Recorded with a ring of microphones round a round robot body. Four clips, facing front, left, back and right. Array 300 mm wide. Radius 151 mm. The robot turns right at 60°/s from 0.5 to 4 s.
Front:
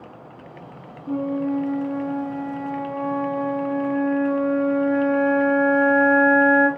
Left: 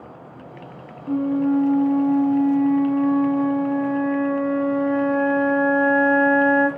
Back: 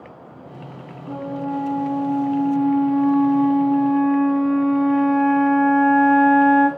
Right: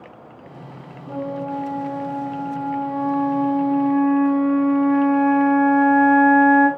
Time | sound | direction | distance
1.1 | a flute | 40° left | 1.5 m